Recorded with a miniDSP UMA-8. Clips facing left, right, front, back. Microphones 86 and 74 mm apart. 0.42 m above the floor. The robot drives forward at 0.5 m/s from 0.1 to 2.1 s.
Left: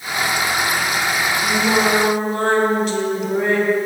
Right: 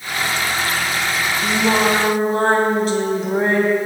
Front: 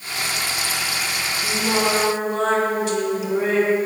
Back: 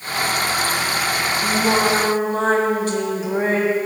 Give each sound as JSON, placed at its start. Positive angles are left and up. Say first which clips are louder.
{"t": 1.4, "sound": "singing", "louder": "right 1 dB, back 3 dB", "azimuth_deg": -130, "distance_m": 3.0}